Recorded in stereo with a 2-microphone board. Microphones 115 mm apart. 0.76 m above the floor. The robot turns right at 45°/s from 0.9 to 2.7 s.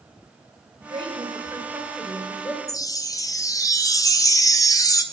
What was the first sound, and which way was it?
A woman speaking, 50° right (ahead or behind).